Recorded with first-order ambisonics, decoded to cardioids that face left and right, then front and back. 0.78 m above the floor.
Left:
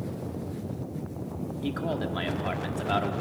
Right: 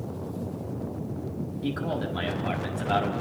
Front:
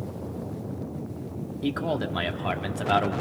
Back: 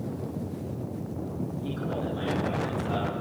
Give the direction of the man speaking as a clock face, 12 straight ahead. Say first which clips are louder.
Right 1 dB, front 6 dB; 12 o'clock.